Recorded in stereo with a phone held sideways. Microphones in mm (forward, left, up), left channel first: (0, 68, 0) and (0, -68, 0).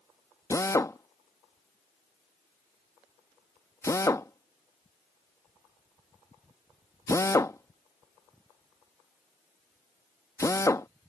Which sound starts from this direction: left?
A drill, at 0.5 s.